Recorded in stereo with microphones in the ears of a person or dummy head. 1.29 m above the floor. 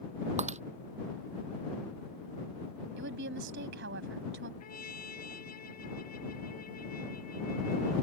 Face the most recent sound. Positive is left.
turn(degrees=50)  # may be behind; listen again after turning